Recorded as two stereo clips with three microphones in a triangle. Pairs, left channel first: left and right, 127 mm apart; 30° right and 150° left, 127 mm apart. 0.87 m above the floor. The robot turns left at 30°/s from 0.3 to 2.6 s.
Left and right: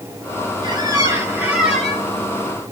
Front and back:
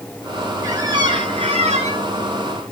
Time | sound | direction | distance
0.6 | a squeak | 140° right | 5.5 m